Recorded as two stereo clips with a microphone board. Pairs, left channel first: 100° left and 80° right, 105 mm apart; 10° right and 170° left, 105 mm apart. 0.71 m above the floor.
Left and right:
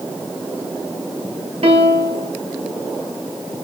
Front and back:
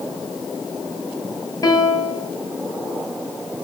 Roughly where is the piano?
Ahead right.